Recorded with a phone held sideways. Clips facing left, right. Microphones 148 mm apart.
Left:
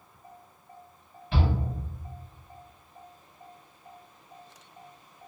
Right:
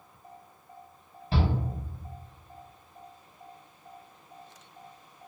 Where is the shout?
35° right (ahead or behind), 1.2 m.